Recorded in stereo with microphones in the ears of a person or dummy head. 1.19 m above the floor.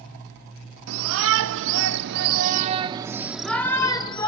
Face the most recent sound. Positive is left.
turn(degrees=30)  # may be behind; listen again after turning